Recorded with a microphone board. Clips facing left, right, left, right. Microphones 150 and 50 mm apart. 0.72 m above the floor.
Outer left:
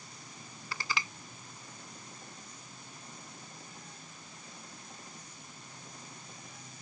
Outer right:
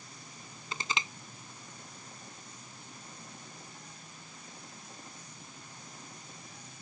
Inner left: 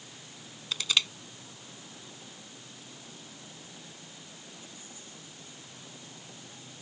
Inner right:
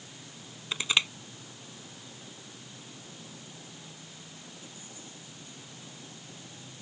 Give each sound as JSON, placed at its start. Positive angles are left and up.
{"t": 0.7, "sound": "crushing", "side_deg": -20}